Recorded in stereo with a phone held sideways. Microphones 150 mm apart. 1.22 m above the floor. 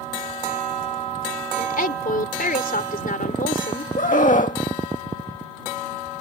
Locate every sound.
1.6 s a woman speaking: 70° left (ahead or behind)
4.0 s a scream: 60° left (ahead or behind)